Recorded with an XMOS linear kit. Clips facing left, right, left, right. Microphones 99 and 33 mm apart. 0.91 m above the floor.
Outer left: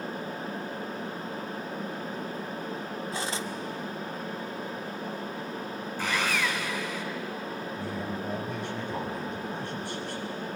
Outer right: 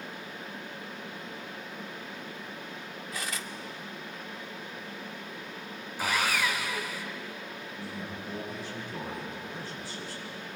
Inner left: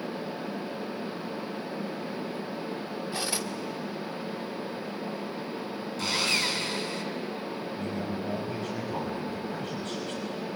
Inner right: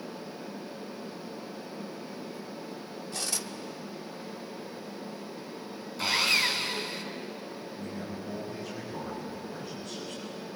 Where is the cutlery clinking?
25° left (ahead or behind), 1.1 m.